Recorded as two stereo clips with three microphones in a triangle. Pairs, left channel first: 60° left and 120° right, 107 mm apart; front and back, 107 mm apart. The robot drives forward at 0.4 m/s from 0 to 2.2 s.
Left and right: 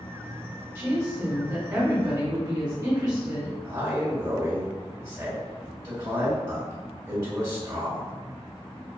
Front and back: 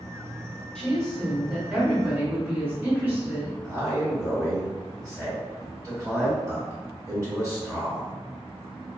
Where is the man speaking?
150° right, 1.5 m.